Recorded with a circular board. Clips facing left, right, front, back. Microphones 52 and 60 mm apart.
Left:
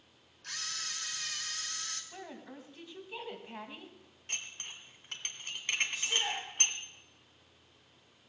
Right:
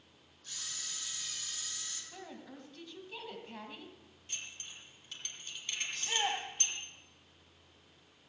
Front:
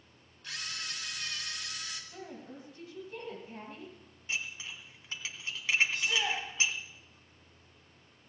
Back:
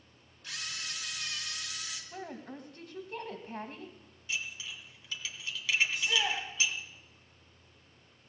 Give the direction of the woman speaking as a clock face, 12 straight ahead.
7 o'clock.